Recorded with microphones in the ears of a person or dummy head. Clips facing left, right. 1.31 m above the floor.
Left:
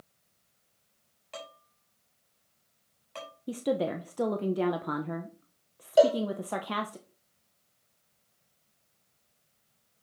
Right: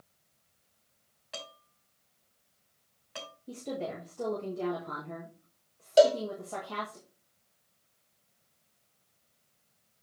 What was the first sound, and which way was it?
Dishes clattering, 10° right (ahead or behind).